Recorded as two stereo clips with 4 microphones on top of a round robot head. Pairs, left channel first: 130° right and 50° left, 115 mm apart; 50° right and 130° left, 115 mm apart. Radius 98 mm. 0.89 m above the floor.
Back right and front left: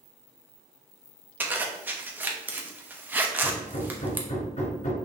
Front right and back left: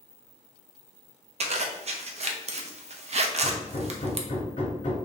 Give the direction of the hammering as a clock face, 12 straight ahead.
3 o'clock.